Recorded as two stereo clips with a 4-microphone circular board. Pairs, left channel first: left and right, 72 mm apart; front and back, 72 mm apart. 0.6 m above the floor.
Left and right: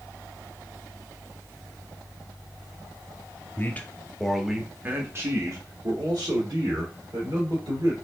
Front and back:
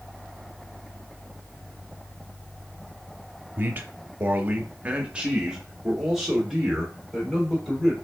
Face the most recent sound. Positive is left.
turn(degrees=-90)